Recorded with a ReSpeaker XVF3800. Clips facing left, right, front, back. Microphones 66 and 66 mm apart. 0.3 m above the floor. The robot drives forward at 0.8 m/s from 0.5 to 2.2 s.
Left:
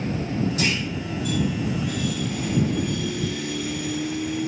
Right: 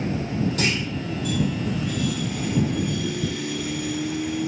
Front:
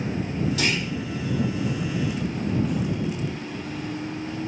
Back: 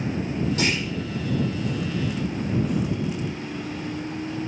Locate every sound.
0.6 s a clunk: 120° right, 3 m